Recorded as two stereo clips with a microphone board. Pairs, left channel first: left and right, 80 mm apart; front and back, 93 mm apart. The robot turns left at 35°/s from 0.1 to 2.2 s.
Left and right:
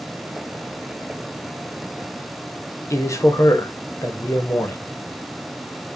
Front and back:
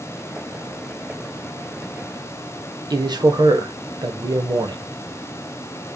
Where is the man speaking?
140° left, 0.7 m.